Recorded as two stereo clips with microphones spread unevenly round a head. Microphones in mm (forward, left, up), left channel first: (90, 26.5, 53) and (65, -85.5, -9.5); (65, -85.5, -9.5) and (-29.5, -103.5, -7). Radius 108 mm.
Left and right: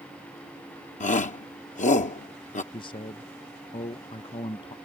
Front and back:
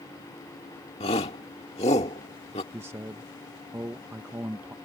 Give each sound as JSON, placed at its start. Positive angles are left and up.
{"t": 1.0, "sound": "a shout", "azimuth_deg": 50}
{"t": 2.7, "sound": "a man speaking", "azimuth_deg": 145}